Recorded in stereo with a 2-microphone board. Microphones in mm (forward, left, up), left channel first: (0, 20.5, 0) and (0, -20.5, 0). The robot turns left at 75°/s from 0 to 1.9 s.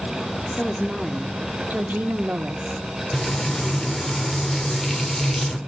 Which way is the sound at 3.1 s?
10° left (ahead or behind).